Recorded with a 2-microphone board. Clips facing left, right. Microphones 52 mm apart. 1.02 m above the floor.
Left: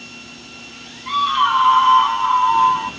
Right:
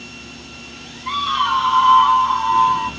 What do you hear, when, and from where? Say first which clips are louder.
1.1 s a scream: left 2 dB; centre (ahead or behind), 0.7 m; by 2.9 s 35° left (ahead or behind), 1.4 m